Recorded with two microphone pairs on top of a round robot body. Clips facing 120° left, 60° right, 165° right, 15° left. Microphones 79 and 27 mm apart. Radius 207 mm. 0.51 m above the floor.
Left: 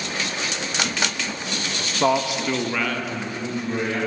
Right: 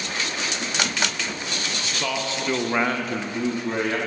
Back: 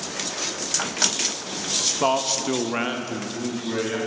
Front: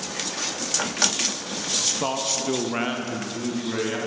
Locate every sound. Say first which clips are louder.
1.8 s a man speaking: left 9 dB, back 6 dB; 130° left, 0.8 m; by 4.0 s 70° right, 1.2 m